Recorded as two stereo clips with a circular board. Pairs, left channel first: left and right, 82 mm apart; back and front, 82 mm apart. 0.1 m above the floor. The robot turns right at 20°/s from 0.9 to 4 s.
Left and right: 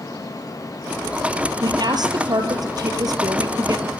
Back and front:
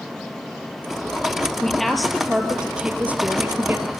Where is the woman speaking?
100° right, 2 m; by 3.9 s 55° right, 2 m.